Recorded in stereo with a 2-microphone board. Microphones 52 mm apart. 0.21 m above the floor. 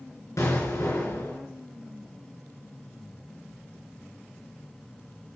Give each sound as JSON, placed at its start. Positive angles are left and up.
{"t": 0.4, "sound": "an explosion", "side_deg": 65, "distance_m": 3.0}